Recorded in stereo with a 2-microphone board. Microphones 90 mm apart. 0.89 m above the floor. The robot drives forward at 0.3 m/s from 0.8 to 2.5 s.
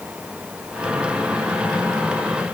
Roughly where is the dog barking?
No dog barking in this recording.